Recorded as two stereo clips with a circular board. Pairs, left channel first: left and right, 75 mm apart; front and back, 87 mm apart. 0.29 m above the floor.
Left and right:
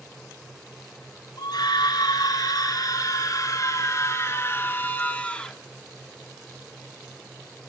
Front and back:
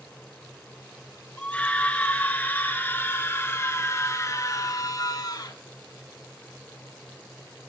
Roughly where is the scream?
Left.